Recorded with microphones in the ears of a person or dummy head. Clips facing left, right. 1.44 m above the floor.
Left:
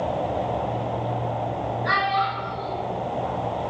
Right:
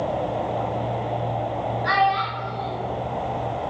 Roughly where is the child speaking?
Right.